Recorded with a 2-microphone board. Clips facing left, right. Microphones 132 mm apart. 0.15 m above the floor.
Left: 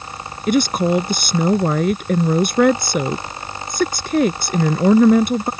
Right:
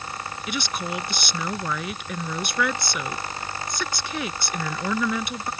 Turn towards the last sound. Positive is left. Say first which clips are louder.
# left 15 dB
turn(degrees=50)  # may be behind; listen again after turning